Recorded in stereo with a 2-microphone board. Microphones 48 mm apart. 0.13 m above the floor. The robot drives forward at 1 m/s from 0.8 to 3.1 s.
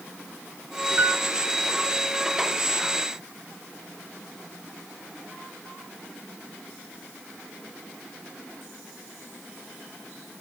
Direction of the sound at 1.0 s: 45° right (ahead or behind).